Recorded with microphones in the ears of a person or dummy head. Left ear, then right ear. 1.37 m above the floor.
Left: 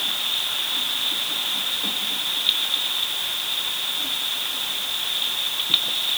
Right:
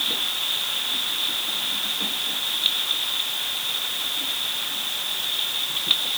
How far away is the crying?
I don't hear crying.